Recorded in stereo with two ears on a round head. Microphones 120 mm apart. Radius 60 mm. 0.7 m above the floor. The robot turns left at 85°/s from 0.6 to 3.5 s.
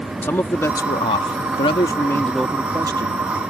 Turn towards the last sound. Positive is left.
turn(degrees=-90)